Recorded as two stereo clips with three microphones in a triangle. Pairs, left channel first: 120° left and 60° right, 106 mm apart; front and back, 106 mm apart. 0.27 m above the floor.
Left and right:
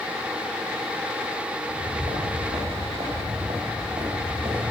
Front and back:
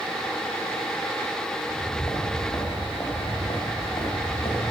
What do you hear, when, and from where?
1.6 s footsteps: 70° right, 3.5 m; by 4.7 s 25° right, 2.5 m